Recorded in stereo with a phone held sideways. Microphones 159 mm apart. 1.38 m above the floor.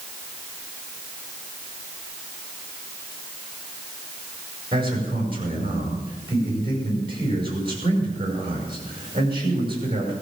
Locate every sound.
4.7 s a man speaking: 30° right (ahead or behind), 5.5 m